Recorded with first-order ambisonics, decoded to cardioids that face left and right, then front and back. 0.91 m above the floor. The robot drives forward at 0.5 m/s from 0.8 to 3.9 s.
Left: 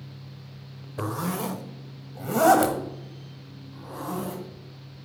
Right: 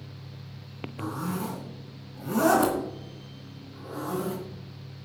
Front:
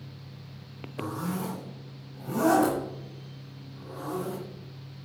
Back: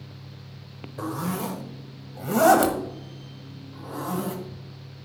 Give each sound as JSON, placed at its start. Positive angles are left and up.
{"t": 1.0, "sound": "a zipper", "azimuth_deg": 105, "distance_m": 0.9}